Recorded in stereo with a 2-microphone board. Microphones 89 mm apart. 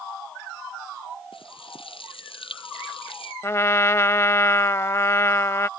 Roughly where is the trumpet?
Left.